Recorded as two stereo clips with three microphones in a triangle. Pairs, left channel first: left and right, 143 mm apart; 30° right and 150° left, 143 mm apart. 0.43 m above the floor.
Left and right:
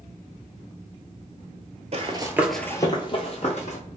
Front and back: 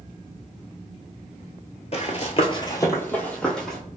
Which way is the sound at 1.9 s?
60° right.